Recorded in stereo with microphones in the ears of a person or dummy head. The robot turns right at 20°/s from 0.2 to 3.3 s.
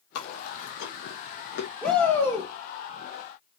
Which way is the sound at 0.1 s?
85° left.